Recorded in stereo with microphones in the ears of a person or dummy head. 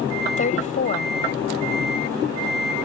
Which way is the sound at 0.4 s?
45° left (ahead or behind).